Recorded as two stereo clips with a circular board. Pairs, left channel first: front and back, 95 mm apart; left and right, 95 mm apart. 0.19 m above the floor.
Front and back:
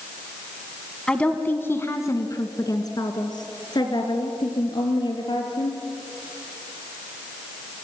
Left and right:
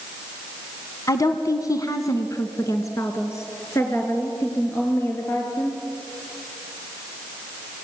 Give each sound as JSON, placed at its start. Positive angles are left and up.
{"t": 1.1, "sound": "a woman speaking", "azimuth_deg": 75, "distance_m": 1.2}